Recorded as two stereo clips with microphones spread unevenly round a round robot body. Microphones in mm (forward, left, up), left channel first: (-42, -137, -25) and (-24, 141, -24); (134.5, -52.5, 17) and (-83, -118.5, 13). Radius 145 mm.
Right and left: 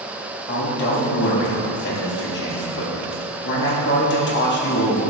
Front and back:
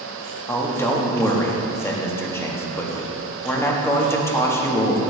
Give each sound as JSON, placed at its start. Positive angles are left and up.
{"t": 0.5, "sound": "a man speaking", "azimuth_deg": -60, "distance_m": 1.3}